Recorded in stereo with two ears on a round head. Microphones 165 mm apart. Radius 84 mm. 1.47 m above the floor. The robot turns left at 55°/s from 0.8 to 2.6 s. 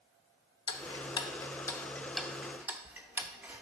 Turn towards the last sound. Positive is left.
turn(degrees=-10)  # may be behind; listen again after turning